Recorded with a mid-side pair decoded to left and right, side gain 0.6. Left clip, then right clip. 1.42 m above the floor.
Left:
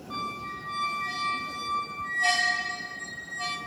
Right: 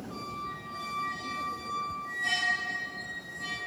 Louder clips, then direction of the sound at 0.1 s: Left 5 dB; 60° left.